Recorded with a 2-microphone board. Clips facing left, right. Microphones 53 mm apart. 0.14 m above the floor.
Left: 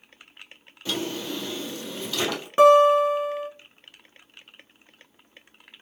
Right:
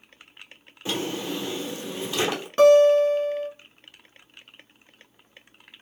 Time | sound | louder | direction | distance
0.8 | a drawer | right 1 dB | 20° right (ahead or behind) | 1.0 m
2.6 | a guitar | even | 15° left (ahead or behind) | 0.9 m